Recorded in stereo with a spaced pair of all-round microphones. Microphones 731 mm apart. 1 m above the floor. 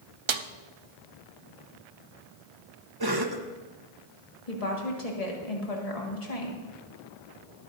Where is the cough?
30° right (ahead or behind), 1.0 m.